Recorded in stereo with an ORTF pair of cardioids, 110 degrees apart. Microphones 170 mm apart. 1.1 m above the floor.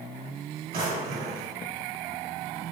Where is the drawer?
65° right, 1.7 m.